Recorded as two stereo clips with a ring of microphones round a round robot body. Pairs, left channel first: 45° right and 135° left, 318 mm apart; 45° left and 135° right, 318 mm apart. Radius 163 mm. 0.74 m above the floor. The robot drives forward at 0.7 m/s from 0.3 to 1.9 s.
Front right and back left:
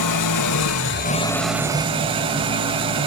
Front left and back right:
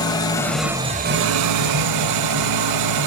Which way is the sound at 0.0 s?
30° right.